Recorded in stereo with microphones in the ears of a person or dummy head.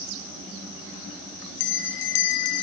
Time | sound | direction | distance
1.6 | a bell | 65° left (ahead or behind) | 1.5 m